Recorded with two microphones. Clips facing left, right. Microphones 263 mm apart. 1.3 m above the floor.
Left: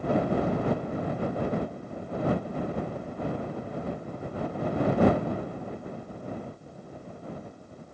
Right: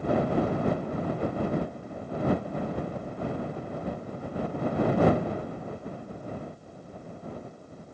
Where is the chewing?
No chewing in this recording.